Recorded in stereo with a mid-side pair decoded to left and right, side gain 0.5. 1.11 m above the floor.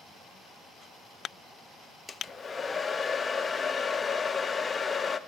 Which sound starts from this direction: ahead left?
A hair dryer, at 2.1 s.